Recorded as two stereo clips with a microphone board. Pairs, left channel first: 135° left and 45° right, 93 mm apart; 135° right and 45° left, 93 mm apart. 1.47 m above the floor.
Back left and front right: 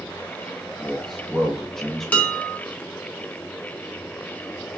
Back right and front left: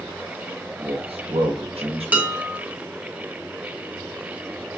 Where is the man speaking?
50° left, 1.0 m.